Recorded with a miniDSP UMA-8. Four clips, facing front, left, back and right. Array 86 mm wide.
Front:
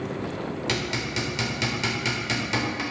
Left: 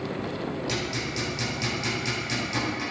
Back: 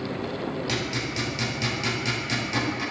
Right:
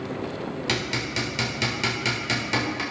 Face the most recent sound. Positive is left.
turn(degrees=-65)